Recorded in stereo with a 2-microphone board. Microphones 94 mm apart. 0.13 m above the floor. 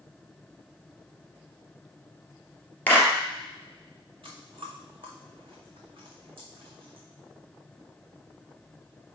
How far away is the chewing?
About 2.5 m.